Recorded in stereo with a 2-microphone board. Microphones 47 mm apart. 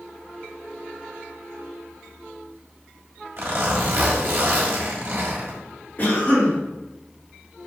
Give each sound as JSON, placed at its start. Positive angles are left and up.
{"t": 3.4, "sound": "a zipper", "side_deg": -60, "distance_m": 1.3}
{"t": 6.0, "sound": "a cough", "side_deg": 40, "distance_m": 1.9}